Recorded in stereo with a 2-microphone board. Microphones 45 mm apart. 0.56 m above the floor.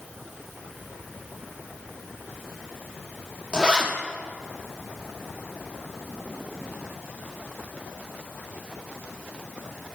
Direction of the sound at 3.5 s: 25° right (ahead or behind).